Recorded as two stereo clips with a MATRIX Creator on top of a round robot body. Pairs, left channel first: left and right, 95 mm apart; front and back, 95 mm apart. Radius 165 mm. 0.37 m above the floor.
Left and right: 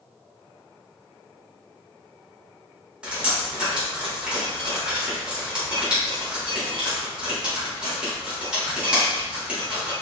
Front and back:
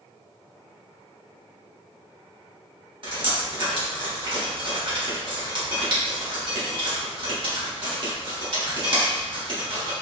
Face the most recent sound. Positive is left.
turn(degrees=-170)